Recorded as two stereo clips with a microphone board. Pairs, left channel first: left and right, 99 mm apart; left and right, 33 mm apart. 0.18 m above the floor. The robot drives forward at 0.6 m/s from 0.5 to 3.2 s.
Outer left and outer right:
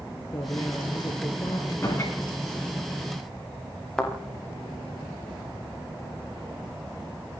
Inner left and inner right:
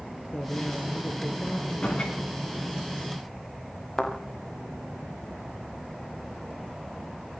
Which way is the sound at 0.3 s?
45° left (ahead or behind).